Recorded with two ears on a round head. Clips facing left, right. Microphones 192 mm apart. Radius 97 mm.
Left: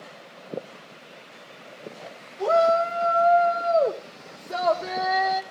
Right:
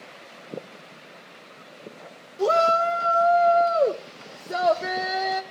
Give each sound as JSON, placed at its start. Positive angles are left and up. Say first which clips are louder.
{"t": 2.4, "sound": "a shout", "louder": "left 1 dB", "side_deg": -40, "distance_m": 1.2}